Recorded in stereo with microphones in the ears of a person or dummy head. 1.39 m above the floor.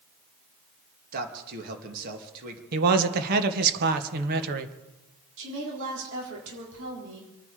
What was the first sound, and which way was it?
A man speaking, 50° right (ahead or behind).